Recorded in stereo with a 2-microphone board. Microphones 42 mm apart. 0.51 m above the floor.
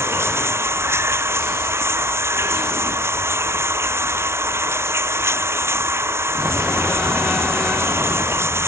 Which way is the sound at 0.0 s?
80° right.